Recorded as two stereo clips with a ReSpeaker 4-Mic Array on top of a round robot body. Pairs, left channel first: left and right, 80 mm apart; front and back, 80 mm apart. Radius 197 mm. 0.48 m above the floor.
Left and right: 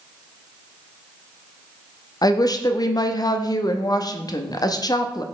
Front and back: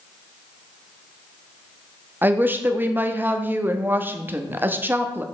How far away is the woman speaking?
About 0.9 m.